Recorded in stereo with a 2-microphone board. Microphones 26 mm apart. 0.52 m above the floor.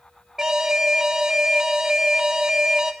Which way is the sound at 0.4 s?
25° right (ahead or behind).